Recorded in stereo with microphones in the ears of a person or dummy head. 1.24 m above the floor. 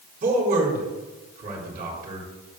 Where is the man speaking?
50° right (ahead or behind), 4 m.